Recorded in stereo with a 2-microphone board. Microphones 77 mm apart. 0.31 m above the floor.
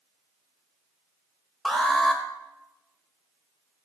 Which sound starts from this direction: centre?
An alarm, at 1.6 s.